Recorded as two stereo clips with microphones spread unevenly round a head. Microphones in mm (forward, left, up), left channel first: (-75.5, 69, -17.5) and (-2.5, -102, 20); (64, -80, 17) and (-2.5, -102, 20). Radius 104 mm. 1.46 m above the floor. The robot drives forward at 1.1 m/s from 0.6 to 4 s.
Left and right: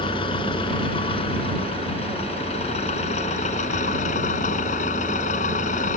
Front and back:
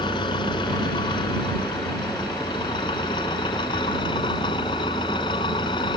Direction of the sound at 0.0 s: 45° left.